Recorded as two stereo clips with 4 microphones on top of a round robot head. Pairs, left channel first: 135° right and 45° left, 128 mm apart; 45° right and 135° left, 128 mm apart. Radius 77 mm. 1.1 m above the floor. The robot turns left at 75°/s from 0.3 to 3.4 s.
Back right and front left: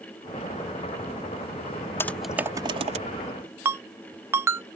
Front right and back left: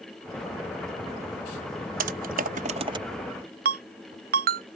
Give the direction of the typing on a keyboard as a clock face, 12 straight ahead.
7 o'clock.